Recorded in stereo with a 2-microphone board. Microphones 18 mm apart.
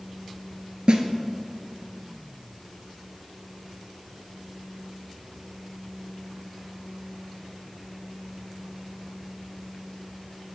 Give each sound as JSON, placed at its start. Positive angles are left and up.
{"t": 0.9, "sound": "a snare drum", "side_deg": -75, "distance_m": 0.7}